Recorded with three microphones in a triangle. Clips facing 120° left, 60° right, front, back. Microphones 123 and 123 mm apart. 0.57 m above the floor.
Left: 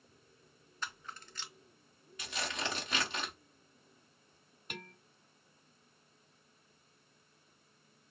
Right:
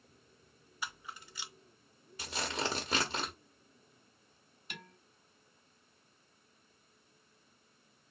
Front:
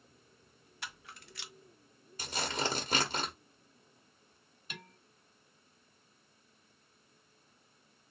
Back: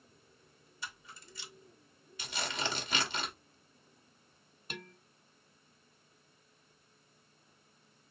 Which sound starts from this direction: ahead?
A camera shutter, at 0.8 s.